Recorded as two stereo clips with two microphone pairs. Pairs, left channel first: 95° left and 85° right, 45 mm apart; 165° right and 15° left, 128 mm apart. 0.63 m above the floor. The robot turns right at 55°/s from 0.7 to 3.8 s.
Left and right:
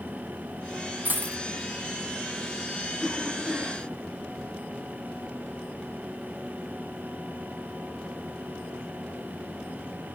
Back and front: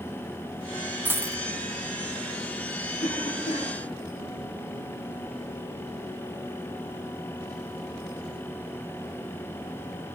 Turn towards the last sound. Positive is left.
turn(degrees=-135)